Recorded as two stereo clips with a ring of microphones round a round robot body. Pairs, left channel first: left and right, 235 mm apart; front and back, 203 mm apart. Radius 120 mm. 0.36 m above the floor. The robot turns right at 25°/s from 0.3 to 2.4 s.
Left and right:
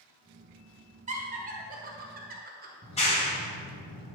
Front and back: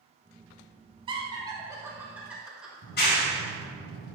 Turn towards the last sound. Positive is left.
turn(degrees=30)